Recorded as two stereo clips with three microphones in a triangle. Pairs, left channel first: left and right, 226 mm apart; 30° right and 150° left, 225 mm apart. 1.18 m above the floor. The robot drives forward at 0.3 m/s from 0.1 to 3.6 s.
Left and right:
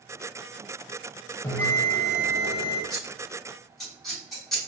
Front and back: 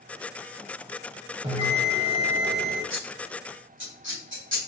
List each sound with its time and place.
1.4 s a bell: 150° left, 1.0 m; by 2.8 s 165° left, 1.2 m
2.9 s scissors: straight behind, 1.7 m